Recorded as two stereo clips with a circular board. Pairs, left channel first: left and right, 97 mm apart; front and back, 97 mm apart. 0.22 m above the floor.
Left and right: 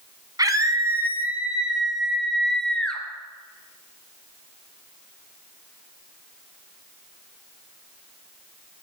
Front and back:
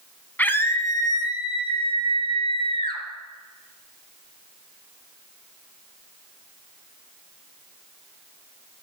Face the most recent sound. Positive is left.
turn(degrees=10)